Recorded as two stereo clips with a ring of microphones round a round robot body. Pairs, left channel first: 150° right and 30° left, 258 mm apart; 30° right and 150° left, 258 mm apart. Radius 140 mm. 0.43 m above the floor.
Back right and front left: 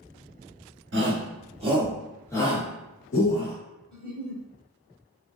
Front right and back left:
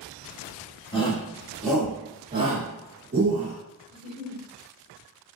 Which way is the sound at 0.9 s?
35° left.